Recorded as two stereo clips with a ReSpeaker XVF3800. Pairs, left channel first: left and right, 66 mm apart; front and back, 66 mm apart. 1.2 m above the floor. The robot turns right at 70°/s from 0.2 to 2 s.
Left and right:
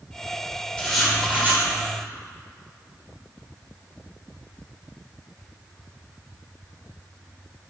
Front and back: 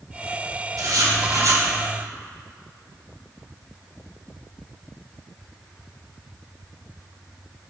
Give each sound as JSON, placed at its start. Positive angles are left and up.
{"t": 0.8, "sound": "writing", "azimuth_deg": 165, "distance_m": 2.0}